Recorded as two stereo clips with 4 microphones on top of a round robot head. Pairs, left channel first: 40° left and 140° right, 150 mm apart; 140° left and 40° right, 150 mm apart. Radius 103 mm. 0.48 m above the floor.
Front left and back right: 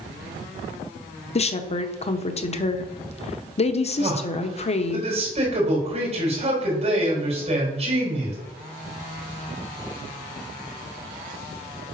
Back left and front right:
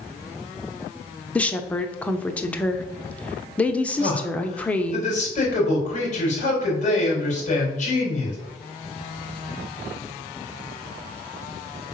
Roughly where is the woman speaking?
Ahead left.